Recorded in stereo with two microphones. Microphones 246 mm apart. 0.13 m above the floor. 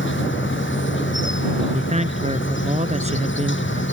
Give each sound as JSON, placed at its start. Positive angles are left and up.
{"t": 0.0, "sound": "an insect", "side_deg": 50}
{"t": 1.7, "sound": "a man speaking", "side_deg": -25}